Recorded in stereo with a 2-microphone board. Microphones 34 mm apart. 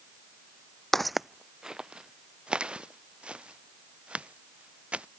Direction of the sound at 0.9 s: 10° left (ahead or behind).